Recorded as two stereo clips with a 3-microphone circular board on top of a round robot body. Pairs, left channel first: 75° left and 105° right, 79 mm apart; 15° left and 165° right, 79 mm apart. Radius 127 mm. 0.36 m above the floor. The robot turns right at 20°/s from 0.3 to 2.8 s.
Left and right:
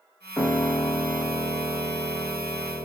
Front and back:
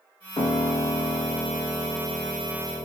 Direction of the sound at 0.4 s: 10° left.